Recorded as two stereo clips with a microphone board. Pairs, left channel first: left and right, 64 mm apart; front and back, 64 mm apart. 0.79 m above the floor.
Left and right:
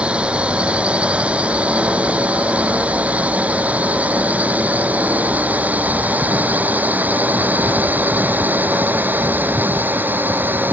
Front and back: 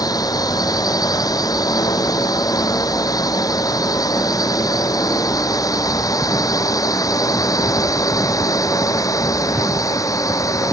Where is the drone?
20° right; by 10.7 s 30° right.